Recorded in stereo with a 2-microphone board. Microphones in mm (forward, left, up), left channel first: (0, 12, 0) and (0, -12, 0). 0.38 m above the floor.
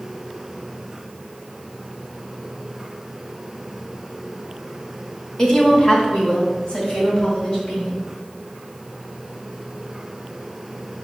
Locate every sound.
5.4 s a woman speaking: 35° left (ahead or behind), 1.3 m